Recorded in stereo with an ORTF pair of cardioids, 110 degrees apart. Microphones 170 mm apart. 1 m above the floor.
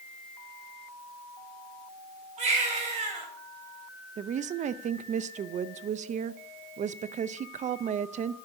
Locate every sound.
2.4 s a baby crying: 40° right, 3 m
4.2 s a woman speaking: 45° right, 0.5 m